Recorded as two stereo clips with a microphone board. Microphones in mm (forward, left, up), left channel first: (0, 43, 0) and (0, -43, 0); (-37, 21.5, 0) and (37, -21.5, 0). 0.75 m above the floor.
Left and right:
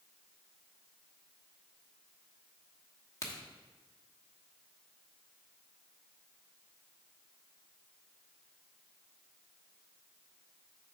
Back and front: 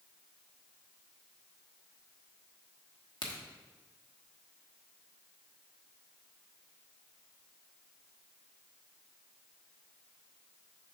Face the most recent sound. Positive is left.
turn(degrees=135)